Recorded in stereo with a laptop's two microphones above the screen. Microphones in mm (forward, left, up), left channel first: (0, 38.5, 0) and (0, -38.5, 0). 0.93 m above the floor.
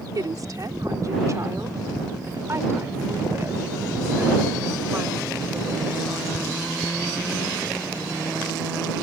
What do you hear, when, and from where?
0.1 s a woman speaking: 55° right (ahead or behind); by 6.7 s 20° right (ahead or behind)